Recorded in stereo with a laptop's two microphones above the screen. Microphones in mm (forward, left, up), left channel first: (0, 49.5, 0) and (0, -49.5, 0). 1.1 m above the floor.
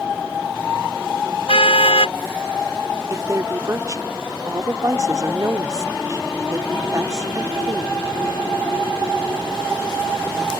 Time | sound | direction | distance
1.5 | a car horn | 80° left | ?
3.1 | a woman speaking | 35° right (ahead or behind) | ?